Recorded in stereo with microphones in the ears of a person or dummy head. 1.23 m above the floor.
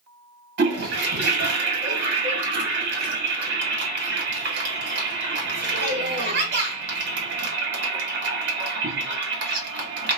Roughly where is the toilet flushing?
Right.